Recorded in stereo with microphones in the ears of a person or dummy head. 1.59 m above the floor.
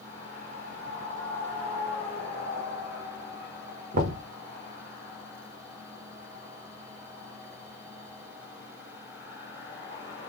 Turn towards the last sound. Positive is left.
turn(degrees=-55)  # may be behind; listen again after turning